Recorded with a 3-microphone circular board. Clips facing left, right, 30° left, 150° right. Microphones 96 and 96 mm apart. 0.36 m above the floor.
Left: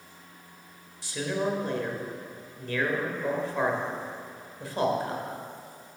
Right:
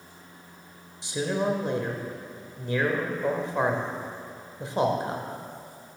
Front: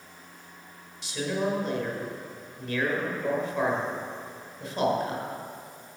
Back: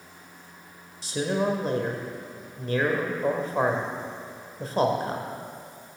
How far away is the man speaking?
About 1.0 m.